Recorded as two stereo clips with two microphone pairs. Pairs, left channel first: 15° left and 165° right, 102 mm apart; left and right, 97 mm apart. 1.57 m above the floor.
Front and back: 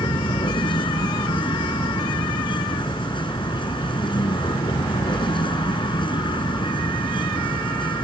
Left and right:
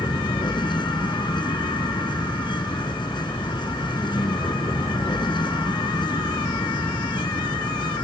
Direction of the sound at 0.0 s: 50° left.